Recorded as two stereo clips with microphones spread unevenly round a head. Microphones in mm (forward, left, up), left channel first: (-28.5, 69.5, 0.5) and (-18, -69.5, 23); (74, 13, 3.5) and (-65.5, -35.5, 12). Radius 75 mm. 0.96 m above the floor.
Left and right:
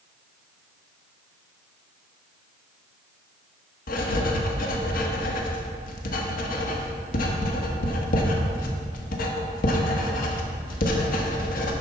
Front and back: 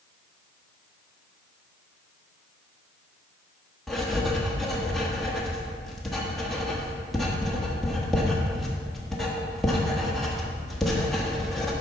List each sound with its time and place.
3.9 s writing: 110° left, 1.2 m